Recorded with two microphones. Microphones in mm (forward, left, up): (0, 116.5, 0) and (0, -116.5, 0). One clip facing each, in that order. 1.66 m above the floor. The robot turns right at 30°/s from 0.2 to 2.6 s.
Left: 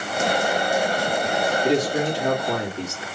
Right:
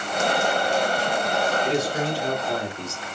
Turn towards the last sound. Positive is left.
turn(degrees=70)  # may be behind; listen again after turning